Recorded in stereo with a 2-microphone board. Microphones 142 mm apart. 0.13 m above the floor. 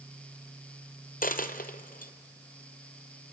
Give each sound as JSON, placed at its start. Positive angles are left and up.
{"t": 1.2, "sound": "a dropped coin", "side_deg": 75, "distance_m": 1.5}